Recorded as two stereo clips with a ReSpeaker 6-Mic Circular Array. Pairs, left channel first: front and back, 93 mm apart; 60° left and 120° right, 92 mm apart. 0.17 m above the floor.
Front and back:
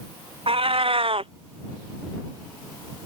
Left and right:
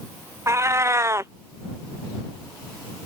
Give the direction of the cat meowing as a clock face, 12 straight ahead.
6 o'clock.